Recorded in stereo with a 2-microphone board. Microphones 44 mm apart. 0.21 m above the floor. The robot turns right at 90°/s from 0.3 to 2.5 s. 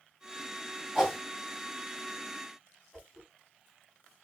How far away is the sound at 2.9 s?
About 1.7 m.